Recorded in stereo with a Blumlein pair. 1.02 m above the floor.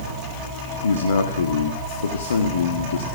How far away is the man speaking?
About 1.4 m.